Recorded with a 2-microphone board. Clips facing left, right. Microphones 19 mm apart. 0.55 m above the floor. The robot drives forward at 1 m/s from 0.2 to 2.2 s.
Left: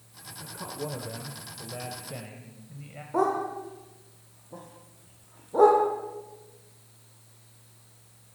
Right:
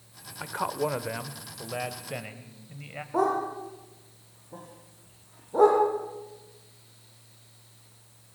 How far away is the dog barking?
About 5.5 m.